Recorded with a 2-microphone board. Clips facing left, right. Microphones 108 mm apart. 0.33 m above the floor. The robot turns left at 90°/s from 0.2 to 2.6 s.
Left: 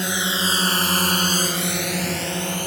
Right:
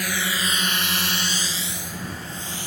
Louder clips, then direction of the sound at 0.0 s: Left 2 dB; 25° left (ahead or behind).